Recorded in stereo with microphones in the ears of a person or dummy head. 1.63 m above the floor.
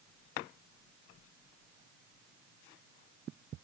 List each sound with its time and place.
Only background noise.